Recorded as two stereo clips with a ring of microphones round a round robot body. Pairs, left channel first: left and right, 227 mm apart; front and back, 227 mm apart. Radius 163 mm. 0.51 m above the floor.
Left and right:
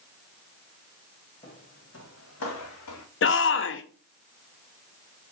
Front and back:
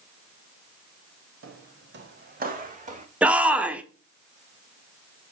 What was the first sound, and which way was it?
Footsteps, 165° left.